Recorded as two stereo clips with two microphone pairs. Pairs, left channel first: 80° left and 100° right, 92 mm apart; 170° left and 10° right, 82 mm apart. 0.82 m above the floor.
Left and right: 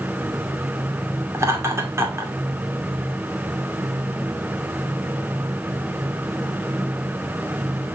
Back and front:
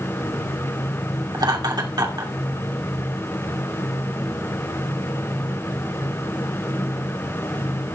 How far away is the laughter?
About 2.5 m.